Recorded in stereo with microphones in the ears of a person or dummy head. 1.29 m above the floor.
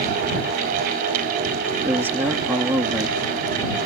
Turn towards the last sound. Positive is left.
turn(degrees=-15)  # may be behind; listen again after turning